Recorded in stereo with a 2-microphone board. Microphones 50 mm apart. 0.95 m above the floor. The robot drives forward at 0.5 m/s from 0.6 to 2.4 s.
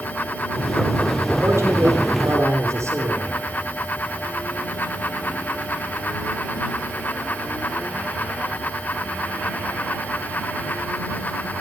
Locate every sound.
1.4 s a man speaking: 75° right (ahead or behind), 3.5 m